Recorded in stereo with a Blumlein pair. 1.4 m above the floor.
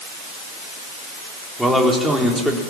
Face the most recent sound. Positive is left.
turn(degrees=0)